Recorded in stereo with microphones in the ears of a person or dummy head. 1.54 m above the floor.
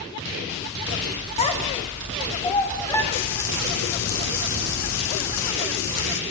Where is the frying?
75° left (ahead or behind), 3 m.